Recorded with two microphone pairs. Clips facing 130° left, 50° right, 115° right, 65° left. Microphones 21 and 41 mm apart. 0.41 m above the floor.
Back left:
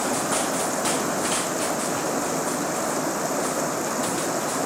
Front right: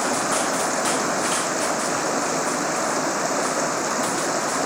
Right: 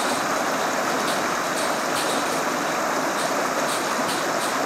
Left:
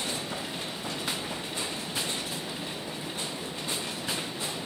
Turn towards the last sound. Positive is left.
turn(degrees=-110)